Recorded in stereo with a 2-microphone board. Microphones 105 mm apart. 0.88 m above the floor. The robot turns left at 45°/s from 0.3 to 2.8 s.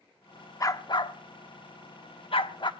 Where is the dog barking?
30° left (ahead or behind), 0.7 m; by 2.7 s 45° left (ahead or behind), 0.7 m.